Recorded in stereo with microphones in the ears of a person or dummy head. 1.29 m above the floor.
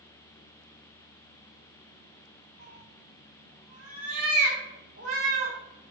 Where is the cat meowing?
85° right, 3.5 m.